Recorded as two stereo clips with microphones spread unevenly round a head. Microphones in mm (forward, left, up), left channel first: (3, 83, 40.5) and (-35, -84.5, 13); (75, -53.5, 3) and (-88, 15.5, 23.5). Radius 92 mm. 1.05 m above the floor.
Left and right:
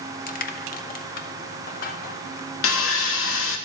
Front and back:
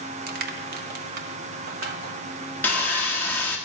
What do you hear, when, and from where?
0.3 s crushing: 115° left, 0.9 m
2.6 s sawing: 60° left, 1.2 m